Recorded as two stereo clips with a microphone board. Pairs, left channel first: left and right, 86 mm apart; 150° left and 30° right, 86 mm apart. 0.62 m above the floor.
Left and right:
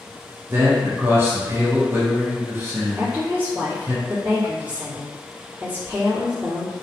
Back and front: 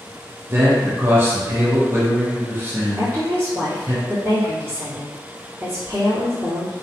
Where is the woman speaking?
45° right, 1.2 m.